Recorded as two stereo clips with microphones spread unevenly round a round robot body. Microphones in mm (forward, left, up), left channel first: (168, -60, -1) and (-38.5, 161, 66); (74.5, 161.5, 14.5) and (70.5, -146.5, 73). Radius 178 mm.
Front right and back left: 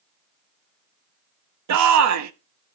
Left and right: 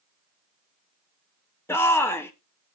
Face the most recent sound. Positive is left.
turn(degrees=155)